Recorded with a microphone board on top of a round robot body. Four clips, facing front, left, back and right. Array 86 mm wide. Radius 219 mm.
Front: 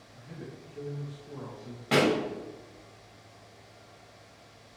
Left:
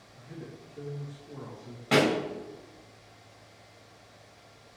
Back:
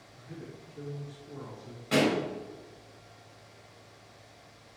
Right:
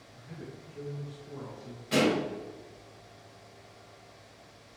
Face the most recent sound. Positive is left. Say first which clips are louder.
# left 2 dB, front 2 dB
turn(degrees=50)